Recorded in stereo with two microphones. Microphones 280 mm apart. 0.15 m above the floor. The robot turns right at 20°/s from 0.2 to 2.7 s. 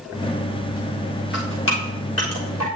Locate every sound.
1.3 s dripping: 40° left (ahead or behind), 5 m; by 2.6 s 70° left (ahead or behind), 5 m